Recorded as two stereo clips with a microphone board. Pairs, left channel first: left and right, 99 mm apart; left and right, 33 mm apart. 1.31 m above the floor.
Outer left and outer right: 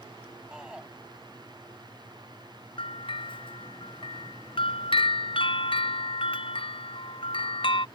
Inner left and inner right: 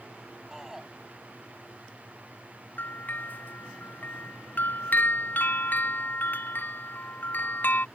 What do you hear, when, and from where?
0.5 s a shout: 5° right (ahead or behind)
2.8 s a bell: 60° left (ahead or behind)